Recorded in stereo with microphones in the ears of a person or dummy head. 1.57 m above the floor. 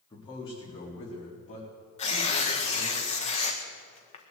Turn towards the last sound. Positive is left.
turn(degrees=40)  # may be behind; listen again after turning